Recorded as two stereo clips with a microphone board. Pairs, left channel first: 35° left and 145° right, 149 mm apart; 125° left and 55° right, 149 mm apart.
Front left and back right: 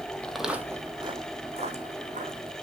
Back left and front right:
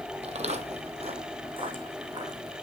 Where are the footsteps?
45° right, 1.0 m; by 2.5 s 115° right, 2.5 m.